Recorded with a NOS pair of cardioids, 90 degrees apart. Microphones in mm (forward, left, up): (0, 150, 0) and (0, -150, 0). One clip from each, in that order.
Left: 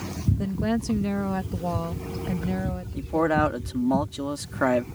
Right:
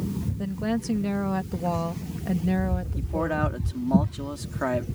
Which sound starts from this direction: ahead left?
A man speaking, at 3.0 s.